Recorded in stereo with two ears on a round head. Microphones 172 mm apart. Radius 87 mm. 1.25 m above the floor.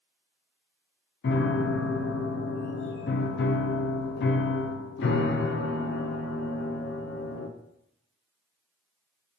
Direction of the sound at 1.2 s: 60° left (ahead or behind).